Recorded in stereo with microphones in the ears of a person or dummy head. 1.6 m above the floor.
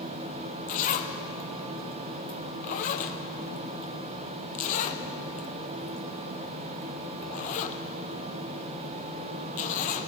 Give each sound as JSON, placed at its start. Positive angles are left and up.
{"t": 0.7, "sound": "a zipper", "side_deg": 45, "distance_m": 0.6}